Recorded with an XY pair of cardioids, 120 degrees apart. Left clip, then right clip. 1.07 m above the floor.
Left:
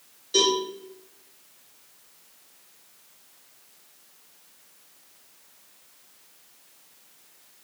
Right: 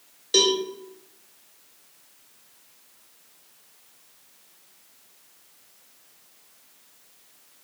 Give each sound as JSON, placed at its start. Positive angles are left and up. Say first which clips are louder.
{"t": 0.3, "sound": "a cowbell", "louder": "right 2 dB", "azimuth_deg": -60, "distance_m": 0.9}